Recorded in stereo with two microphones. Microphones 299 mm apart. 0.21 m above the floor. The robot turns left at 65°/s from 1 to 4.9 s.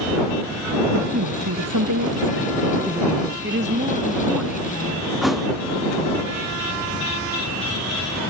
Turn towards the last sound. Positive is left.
turn(degrees=0)  # may be behind; listen again after turning